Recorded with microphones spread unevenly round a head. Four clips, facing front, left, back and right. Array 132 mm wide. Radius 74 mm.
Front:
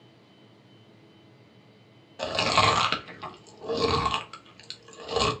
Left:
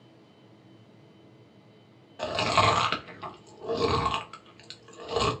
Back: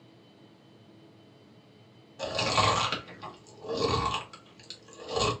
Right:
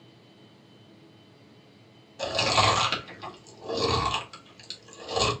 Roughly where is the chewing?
Ahead.